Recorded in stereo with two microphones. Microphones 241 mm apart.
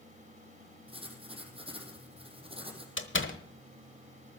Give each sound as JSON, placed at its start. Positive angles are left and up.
{"t": 0.9, "sound": "writing", "side_deg": -25, "distance_m": 3.0}
{"t": 3.0, "sound": "a door slam", "side_deg": 55, "distance_m": 1.2}